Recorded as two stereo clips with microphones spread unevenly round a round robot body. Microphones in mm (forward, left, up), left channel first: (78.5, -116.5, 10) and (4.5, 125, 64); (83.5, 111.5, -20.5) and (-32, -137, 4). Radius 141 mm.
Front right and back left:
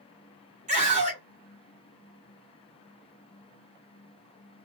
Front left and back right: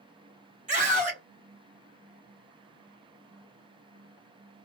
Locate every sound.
0.7 s a scream: 175° left, 2.5 m